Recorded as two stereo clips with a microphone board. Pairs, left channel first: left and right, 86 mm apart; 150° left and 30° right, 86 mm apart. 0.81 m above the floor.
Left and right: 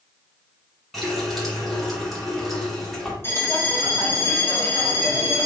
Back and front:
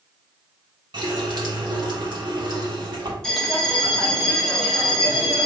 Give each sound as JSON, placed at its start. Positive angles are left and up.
{"t": 0.9, "sound": "a running tap", "azimuth_deg": 0, "distance_m": 1.4}
{"t": 3.2, "sound": "a bell", "azimuth_deg": 75, "distance_m": 1.0}